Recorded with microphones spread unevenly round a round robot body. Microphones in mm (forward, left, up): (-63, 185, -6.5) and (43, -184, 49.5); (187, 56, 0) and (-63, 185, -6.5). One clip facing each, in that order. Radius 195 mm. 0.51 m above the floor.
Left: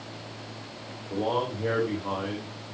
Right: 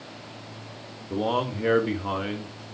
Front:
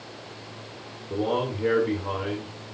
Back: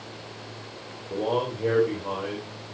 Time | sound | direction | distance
1.1 | a man speaking | 95° right | 1.7 m